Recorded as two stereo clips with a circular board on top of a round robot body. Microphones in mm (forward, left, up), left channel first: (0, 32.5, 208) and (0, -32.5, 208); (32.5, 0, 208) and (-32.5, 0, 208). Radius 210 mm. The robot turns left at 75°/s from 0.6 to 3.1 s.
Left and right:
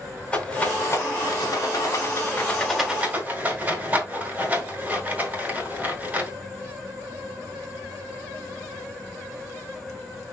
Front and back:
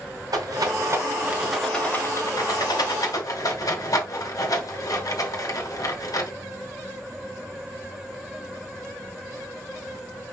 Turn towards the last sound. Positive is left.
turn(degrees=-25)